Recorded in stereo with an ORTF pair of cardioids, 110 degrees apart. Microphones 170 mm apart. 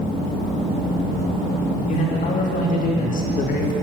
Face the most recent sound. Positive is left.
turn(degrees=60)